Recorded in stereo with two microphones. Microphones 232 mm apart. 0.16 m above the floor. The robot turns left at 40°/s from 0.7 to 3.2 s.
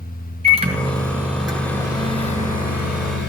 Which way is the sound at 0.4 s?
150° right.